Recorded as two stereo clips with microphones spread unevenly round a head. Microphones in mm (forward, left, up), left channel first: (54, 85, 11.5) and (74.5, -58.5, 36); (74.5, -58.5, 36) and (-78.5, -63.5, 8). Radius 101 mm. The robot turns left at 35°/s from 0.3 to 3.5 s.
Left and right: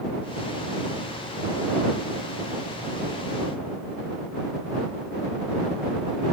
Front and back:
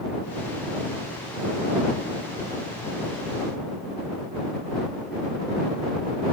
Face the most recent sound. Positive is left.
No sound to turn to.